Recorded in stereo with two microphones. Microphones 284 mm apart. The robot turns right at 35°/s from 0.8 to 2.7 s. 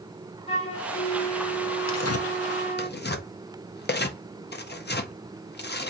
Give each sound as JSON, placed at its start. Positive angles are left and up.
{"t": 0.5, "sound": "a flute", "azimuth_deg": 155, "distance_m": 1.4}
{"t": 1.9, "sound": "tearing paper", "side_deg": 65, "distance_m": 0.6}